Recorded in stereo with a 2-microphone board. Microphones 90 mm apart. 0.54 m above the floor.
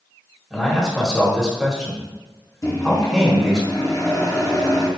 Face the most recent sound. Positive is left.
turn(degrees=35)  # may be behind; listen again after turning